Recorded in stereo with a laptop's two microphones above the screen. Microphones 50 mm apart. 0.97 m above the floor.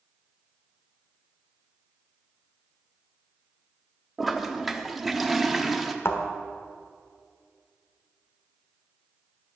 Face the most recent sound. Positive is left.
turn(degrees=60)  # may be behind; listen again after turning